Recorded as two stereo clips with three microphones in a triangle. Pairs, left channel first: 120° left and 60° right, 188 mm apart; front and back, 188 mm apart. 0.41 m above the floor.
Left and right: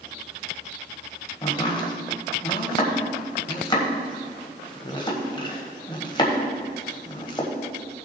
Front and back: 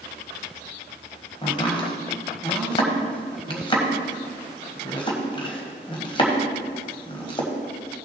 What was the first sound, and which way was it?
Chopping, 60° left.